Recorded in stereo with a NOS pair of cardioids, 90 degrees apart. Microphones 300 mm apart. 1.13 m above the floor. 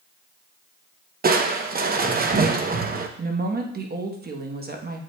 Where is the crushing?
30° right, 0.7 m.